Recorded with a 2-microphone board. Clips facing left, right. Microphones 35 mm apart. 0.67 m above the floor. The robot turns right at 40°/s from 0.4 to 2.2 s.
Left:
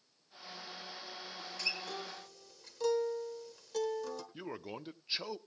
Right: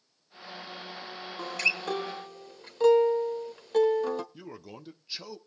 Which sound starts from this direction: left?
A man speaking, at 4.3 s.